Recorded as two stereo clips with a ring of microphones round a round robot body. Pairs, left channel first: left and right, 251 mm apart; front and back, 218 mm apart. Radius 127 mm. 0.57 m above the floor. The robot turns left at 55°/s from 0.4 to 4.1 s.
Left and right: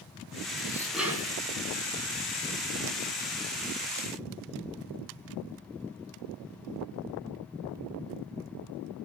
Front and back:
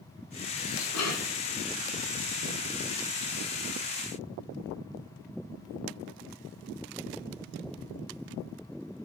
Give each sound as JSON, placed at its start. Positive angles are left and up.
{"t": 0.6, "sound": "dishes clattering", "azimuth_deg": 20, "distance_m": 4.5}